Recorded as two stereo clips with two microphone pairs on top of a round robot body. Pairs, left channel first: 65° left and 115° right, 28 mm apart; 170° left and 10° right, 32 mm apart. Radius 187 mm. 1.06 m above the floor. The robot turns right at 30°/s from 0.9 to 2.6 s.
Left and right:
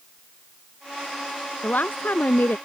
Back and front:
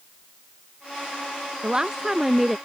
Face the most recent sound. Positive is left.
turn(degrees=85)